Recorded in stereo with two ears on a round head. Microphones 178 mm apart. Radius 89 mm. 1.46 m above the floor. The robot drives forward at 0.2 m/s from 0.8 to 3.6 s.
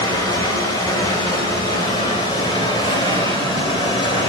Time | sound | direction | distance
0.0 | running water | 20° left (ahead or behind) | 1.6 m